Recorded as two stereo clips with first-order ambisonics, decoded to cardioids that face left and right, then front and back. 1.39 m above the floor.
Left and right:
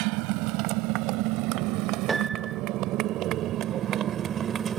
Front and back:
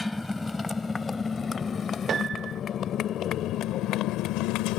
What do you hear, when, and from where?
0.0 s a motorcycle: 85° right; by 4.8 s 25° right
2.1 s a piano: 150° right